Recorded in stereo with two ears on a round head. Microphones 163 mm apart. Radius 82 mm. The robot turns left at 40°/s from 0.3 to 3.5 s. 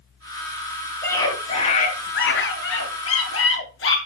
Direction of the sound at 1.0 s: 170° left.